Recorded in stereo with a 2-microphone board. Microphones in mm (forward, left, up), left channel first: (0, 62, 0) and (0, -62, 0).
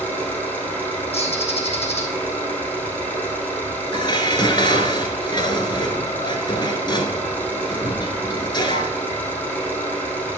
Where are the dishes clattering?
35° left (ahead or behind), 1.2 m.